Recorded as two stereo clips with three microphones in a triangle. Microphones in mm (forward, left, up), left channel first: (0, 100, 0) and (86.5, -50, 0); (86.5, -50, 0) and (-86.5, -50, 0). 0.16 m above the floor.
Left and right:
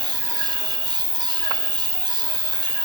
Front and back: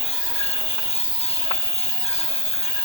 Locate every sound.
0.0 s an insect: 45° left, 1.5 m